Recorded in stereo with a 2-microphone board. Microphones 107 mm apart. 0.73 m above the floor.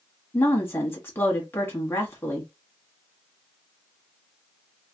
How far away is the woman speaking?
About 1.2 m.